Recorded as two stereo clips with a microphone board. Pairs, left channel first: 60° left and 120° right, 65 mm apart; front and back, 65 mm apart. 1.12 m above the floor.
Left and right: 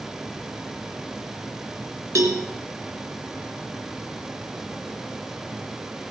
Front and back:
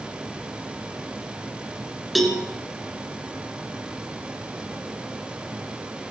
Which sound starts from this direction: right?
A cowbell, at 2.1 s.